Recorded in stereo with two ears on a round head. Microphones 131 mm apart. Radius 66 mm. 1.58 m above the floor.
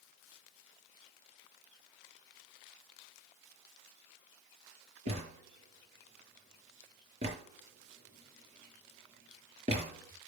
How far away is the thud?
About 6 m.